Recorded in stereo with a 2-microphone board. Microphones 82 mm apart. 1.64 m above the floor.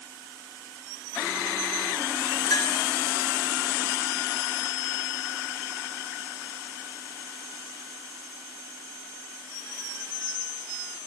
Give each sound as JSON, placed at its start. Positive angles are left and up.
{"t": 2.5, "sound": "a clink", "side_deg": 45, "distance_m": 4.5}